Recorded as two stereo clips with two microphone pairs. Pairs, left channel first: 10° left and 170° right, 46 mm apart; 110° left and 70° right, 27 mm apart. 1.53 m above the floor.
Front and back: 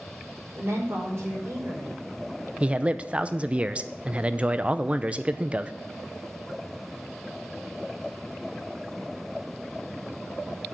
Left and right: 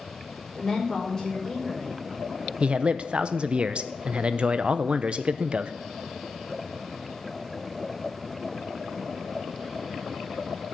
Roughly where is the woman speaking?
Behind.